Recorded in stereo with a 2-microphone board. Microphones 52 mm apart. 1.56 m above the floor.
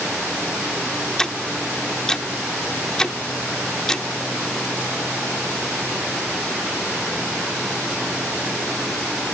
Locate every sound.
1.2 s ticking: 10° left (ahead or behind)